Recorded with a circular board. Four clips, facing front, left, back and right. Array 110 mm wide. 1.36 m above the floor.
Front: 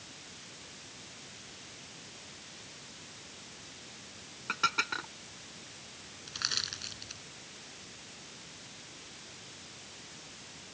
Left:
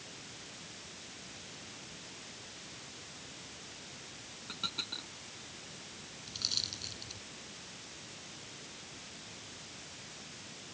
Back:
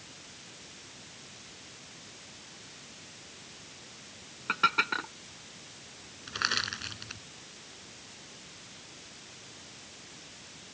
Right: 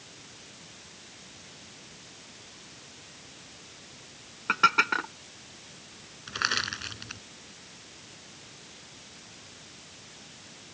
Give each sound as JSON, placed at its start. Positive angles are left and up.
{"t": 4.5, "sound": "dishes clattering", "azimuth_deg": -100}
{"t": 6.3, "sound": "crushing", "azimuth_deg": -115}